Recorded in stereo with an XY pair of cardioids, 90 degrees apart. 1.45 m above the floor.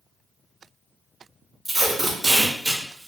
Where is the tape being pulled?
20° right, 1.0 m.